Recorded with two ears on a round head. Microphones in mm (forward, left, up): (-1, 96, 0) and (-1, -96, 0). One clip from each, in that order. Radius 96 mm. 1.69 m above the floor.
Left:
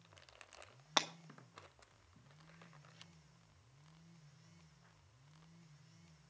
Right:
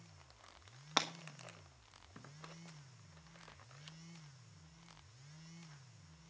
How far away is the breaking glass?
About 1.1 m.